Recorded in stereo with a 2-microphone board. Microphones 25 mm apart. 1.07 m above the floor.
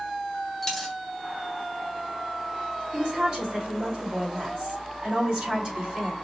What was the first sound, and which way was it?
A dropped coin, 5° left (ahead or behind).